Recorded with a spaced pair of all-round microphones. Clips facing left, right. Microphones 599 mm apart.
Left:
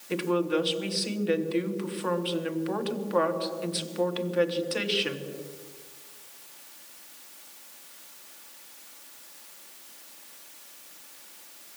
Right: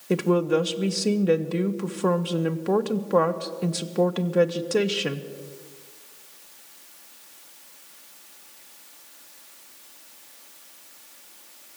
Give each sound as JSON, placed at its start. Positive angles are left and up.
{"t": 0.1, "sound": "a woman speaking", "side_deg": -65, "distance_m": 1.0}